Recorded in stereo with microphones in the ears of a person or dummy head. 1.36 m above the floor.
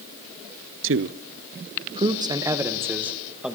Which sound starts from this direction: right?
A man speaking, at 0.8 s.